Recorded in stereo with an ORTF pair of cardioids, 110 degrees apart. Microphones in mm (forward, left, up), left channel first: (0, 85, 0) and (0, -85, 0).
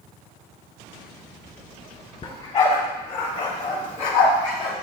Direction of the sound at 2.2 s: 35° left.